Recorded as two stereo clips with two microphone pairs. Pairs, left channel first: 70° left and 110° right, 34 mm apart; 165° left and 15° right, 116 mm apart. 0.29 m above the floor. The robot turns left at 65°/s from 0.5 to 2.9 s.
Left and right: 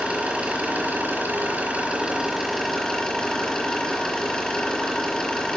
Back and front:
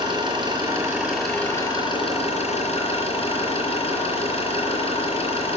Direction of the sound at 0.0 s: 60° right.